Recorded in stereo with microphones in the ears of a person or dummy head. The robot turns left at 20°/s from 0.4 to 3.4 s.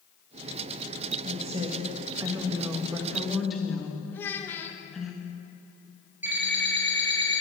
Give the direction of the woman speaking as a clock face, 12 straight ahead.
5 o'clock.